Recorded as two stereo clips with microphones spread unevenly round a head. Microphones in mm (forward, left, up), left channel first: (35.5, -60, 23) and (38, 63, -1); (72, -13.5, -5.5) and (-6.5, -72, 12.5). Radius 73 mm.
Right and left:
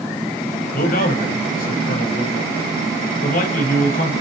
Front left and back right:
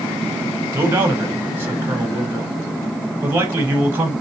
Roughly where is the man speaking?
Right.